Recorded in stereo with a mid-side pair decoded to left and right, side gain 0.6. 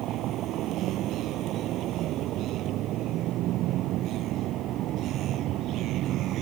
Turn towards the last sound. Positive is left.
turn(degrees=-60)